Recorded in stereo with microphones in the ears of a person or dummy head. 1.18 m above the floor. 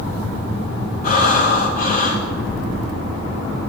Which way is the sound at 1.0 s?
50° left (ahead or behind).